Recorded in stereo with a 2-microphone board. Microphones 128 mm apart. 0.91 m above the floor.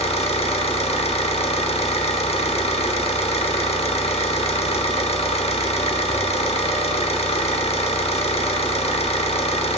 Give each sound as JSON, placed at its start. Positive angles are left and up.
{"t": 0.0, "sound": "an engine running", "side_deg": 55, "distance_m": 1.0}